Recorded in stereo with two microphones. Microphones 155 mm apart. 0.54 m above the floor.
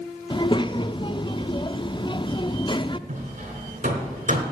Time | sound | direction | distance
0.3 | a child speaking | 30° left (ahead or behind) | 0.5 m
3.1 | hammering | 55° right (ahead or behind) | 3 m